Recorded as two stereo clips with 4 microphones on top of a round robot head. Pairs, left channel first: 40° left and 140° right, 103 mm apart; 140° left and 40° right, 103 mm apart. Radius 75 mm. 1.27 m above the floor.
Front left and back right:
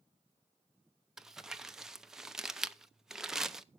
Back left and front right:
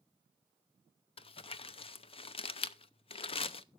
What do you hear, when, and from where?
1.2 s crumpling: 135° left, 0.8 m